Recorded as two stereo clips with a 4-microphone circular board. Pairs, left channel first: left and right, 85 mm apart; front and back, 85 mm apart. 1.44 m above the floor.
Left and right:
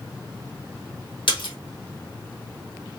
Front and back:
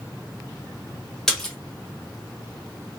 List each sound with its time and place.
1.3 s a splash: 85° left, 1.5 m